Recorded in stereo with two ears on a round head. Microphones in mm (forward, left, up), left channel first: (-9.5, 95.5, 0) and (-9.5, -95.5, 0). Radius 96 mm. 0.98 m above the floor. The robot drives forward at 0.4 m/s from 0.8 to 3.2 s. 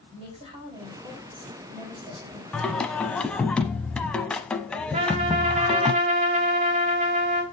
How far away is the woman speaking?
About 6 m.